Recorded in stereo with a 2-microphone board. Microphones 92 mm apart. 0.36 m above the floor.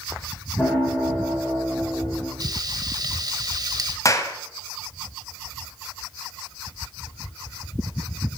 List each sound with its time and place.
0.6 s a piano: 15° left (ahead or behind), 6.5 m
2.4 s frying: 45° right (ahead or behind), 1.1 m
4.0 s a clap: 35° left (ahead or behind), 1.4 m